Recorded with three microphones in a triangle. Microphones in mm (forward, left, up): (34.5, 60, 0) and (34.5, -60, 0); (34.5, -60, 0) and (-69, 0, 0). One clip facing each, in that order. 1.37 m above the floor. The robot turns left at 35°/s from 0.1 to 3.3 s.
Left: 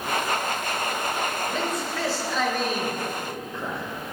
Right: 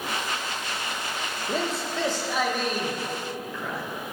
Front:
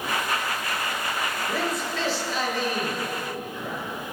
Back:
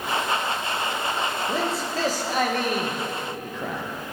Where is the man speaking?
140° right, 1.2 m; by 3.8 s 155° left, 1.2 m.